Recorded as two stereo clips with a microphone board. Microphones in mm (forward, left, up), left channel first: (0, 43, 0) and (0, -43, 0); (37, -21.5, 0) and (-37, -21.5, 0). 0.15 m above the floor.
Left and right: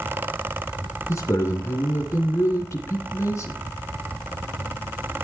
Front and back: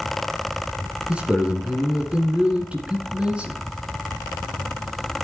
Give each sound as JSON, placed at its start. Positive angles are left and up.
{"t": 1.1, "sound": "a man speaking", "azimuth_deg": 115, "distance_m": 2.0}